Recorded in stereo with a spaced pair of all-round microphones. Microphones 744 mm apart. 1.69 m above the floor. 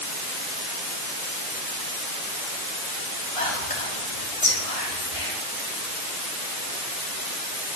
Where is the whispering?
45° left (ahead or behind), 5 m.